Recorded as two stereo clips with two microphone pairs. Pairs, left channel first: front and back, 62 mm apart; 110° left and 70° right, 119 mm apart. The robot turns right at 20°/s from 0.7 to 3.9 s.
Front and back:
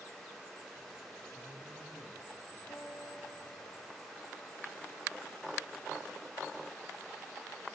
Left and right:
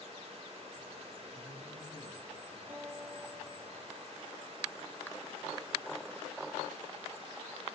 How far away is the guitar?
About 4 m.